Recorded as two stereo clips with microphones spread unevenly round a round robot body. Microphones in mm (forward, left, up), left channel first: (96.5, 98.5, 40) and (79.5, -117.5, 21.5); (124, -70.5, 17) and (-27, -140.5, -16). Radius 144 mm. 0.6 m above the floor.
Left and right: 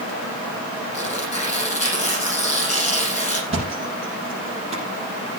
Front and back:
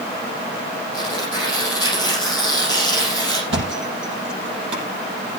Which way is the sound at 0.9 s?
150° left.